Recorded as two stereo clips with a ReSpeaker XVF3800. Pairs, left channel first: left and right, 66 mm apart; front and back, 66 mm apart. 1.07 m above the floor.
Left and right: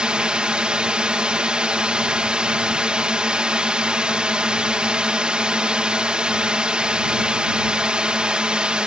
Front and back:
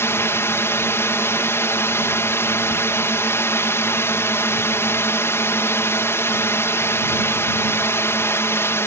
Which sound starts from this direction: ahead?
A drone, at 0.0 s.